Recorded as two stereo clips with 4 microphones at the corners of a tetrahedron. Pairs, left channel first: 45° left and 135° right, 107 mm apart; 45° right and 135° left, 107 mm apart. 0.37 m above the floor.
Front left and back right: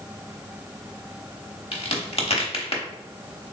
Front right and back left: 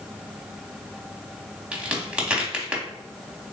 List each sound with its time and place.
1.7 s a crack: 55° left, 0.8 m